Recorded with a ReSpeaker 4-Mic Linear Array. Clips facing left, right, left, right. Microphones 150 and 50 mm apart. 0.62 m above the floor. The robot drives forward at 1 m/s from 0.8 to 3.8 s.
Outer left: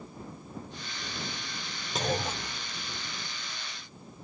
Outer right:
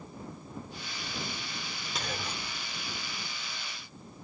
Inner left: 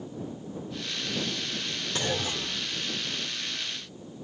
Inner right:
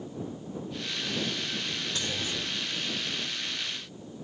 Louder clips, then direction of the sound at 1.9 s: Outer left 8 dB, inner left 7 dB; 40° left (ahead or behind).